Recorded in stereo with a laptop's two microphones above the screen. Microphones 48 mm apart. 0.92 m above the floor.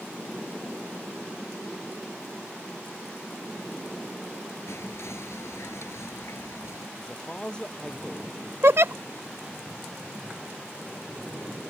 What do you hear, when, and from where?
4.7 s whispering: 70° left (ahead or behind)
7.0 s a man speaking: 20° left (ahead or behind)
8.6 s a giggle: 65° right (ahead or behind)